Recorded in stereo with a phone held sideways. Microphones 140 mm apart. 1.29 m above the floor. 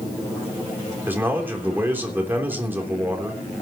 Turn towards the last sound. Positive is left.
turn(degrees=-15)  # may be behind; listen again after turning